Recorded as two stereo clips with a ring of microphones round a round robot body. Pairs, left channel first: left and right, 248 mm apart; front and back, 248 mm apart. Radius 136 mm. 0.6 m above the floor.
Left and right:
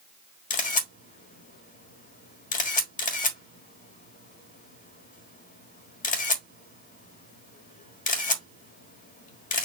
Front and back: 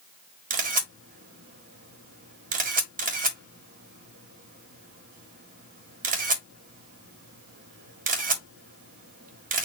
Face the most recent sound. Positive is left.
turn(degrees=135)